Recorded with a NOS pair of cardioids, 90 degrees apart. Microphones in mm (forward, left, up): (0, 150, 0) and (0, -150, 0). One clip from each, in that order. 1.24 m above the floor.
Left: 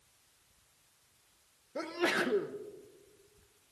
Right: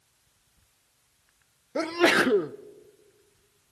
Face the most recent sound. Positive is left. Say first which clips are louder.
# right 10 dB
turn(degrees=-50)